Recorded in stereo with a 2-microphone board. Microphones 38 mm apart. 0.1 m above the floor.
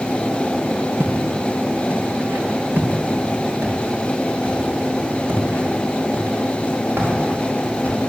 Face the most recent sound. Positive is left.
turn(degrees=-70)  # may be behind; listen again after turning